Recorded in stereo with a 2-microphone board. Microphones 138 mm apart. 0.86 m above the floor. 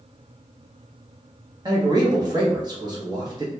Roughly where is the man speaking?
Right.